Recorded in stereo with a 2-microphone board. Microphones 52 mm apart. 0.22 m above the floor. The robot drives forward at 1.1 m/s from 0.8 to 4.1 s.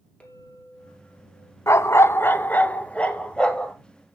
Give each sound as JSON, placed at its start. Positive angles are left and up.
{"t": 0.2, "sound": "a clink", "side_deg": 20, "distance_m": 3.0}
{"t": 1.7, "sound": "a dog barking", "side_deg": 65, "distance_m": 0.7}